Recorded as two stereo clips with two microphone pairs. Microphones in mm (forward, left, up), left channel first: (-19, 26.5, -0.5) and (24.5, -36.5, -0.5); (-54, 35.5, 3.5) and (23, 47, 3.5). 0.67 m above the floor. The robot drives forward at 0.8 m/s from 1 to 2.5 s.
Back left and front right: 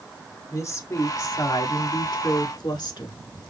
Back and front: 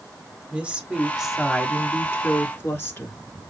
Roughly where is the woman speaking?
Left.